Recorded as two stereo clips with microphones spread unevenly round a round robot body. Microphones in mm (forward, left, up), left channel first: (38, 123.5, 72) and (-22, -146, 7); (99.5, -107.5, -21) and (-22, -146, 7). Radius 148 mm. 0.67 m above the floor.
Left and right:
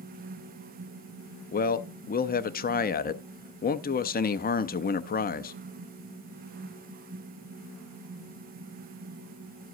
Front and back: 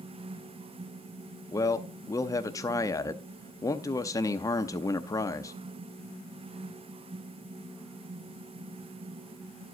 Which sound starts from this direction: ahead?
A man speaking, at 1.5 s.